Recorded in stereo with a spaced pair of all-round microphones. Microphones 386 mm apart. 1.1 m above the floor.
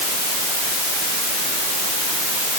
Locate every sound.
Only background noise.